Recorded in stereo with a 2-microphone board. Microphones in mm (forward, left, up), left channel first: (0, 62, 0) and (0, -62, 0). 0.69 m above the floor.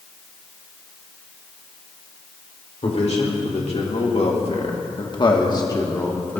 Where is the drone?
No drone in this recording.